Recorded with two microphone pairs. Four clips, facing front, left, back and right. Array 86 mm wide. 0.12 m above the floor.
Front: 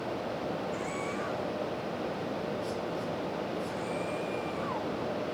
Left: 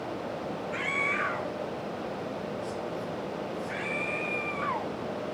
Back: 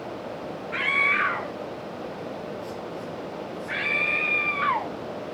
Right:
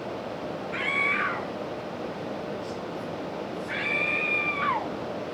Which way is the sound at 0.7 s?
175° right.